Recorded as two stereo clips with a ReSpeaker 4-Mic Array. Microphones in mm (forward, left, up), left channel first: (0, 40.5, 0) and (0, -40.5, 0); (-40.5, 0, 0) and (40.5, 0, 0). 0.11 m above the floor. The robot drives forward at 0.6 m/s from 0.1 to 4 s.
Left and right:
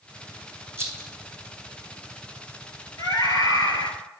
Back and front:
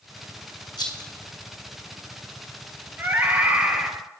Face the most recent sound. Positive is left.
turn(degrees=80)